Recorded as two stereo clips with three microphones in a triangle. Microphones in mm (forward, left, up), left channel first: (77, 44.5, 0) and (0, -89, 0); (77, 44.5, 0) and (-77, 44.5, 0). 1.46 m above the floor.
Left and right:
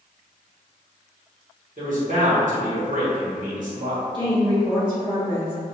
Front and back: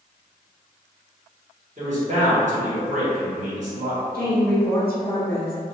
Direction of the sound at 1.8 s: 145° right.